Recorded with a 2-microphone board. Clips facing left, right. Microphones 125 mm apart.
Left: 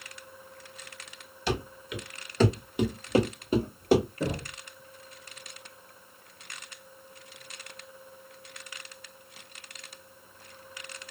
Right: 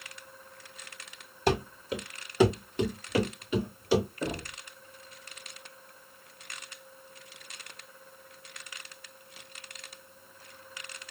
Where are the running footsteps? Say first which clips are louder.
Right 4 dB; 50° right (ahead or behind), 1.4 m; by 4.1 s 50° left (ahead or behind), 1.9 m.